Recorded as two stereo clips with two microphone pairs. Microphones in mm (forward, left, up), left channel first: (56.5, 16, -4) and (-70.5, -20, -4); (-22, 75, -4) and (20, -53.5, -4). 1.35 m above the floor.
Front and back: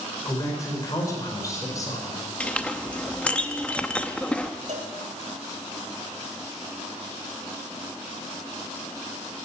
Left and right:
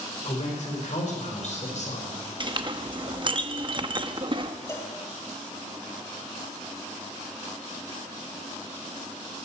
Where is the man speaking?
80° left, 4.5 m.